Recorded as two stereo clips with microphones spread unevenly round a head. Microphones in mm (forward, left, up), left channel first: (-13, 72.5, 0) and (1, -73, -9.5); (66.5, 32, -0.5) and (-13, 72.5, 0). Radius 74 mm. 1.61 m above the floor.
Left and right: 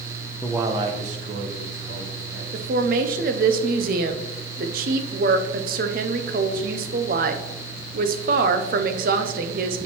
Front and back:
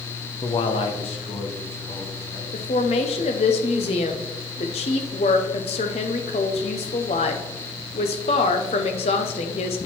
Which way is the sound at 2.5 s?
50° right.